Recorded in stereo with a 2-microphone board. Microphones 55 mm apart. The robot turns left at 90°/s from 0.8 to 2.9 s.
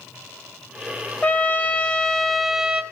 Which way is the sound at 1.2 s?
25° left (ahead or behind).